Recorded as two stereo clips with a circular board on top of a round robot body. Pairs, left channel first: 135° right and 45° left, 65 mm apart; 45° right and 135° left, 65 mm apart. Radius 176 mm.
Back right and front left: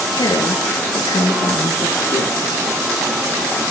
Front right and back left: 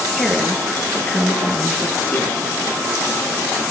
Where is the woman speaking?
125° right, 7 m; by 2.5 s 105° right, 9 m.